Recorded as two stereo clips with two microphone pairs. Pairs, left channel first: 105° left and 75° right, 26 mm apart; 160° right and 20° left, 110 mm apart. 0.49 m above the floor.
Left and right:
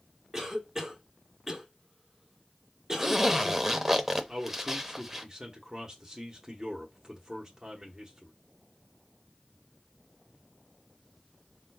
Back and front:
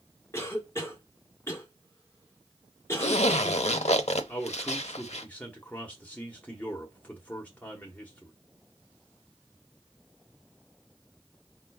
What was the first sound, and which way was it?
A cough, 140° right.